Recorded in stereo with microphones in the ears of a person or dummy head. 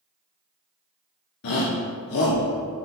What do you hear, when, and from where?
1.4 s a shout: 65° left (ahead or behind), 0.8 m